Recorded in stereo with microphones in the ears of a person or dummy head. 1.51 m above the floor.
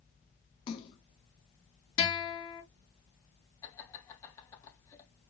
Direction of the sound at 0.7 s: 25° left (ahead or behind).